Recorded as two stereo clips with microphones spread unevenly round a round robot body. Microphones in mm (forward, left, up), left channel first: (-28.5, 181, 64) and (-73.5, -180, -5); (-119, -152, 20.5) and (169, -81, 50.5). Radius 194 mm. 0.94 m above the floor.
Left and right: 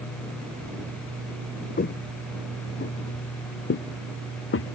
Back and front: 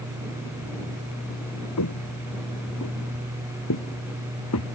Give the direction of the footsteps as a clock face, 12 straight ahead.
7 o'clock.